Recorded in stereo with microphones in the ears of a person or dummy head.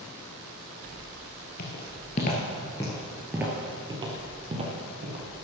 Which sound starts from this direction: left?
Footsteps, at 1.6 s.